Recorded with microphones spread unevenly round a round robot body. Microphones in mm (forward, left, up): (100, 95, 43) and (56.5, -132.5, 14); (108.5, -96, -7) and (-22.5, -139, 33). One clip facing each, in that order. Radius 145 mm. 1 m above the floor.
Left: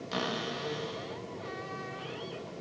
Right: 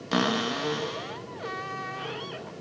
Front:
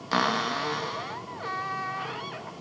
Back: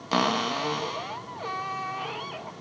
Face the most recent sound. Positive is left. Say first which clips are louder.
# right 9 dB, back 2 dB
turn(degrees=-85)